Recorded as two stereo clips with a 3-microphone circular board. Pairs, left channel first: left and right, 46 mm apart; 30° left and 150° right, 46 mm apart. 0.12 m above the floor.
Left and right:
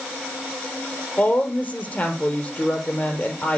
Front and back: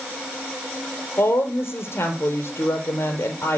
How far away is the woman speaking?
About 3.5 m.